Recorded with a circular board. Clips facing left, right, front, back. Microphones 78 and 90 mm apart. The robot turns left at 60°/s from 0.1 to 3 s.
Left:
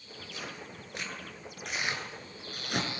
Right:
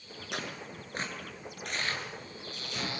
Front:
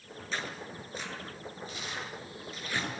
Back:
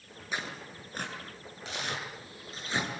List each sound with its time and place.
0.3 s tearing paper: 105° right, 8 m; by 2.9 s 100° left, 8 m